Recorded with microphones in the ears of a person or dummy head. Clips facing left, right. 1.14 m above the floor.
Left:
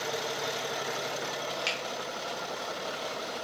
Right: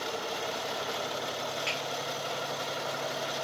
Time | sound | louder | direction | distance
1.7 | a finger snap | even | 65° left (ahead or behind) | 2 m